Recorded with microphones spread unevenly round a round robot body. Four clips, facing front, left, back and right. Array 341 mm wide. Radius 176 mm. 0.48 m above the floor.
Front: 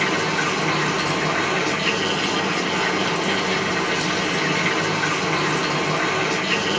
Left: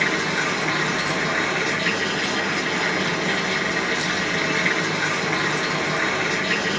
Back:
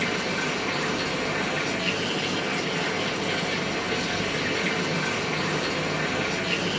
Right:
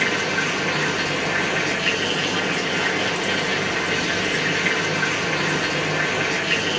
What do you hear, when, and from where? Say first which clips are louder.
0.0 s running water: even, front 6 dB; 15° left, 4.5 m